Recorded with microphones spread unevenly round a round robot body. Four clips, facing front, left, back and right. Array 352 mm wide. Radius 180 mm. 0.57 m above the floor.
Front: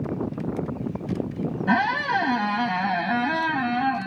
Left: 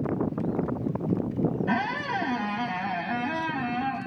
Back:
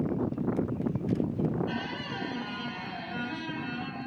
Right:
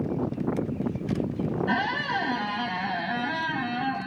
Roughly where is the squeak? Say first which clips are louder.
Right 1 dB, front 13 dB; ahead.